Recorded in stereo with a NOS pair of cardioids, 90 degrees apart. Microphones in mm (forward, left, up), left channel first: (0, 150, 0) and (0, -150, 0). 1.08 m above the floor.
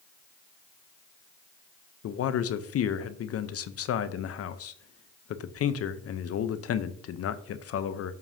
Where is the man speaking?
55° left, 0.7 m.